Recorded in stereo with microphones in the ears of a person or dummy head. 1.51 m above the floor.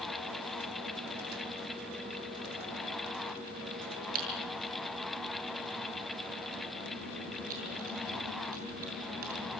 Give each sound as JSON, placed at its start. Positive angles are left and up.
{"t": 4.2, "sound": "typing on a keyboard", "side_deg": -45, "distance_m": 8.0}